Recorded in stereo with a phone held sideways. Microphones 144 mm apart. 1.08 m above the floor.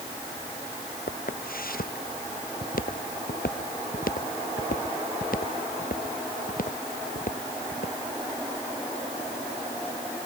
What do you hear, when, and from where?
1.1 s footsteps: 85° left; by 7.9 s 70° left (ahead or behind)